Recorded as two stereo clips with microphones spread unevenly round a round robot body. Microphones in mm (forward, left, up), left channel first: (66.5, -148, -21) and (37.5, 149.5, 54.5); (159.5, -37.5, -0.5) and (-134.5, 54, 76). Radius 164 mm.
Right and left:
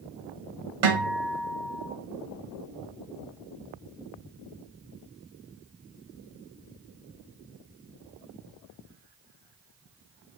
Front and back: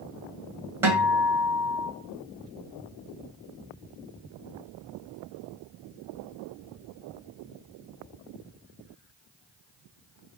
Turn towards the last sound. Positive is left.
turn(degrees=80)